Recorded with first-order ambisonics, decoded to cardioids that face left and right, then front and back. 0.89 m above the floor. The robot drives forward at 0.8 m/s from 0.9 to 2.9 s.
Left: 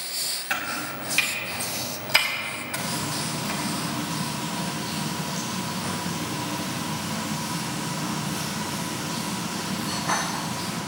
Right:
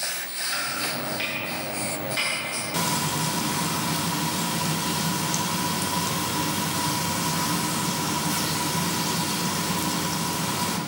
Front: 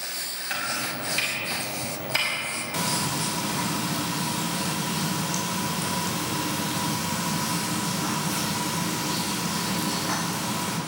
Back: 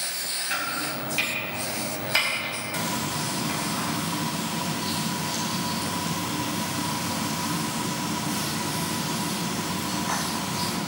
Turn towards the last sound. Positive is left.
turn(degrees=-70)